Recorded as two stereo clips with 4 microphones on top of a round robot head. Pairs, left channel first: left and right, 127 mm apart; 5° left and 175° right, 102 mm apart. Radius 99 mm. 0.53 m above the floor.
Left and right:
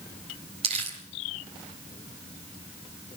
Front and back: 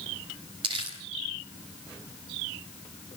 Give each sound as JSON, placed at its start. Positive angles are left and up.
{"t": 0.6, "sound": "crumpling", "azimuth_deg": -135, "distance_m": 4.0}